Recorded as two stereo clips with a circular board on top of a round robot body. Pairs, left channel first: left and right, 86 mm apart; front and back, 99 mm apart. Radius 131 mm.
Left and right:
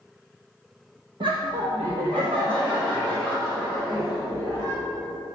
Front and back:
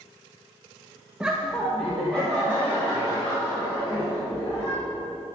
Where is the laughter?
100° right, 0.9 m; by 4.8 s 75° right, 5 m.